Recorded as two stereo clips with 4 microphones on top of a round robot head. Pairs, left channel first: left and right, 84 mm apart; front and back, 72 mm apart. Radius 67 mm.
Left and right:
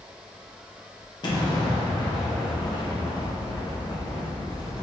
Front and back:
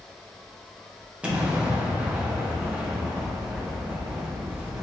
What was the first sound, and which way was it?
An explosion, 110° left.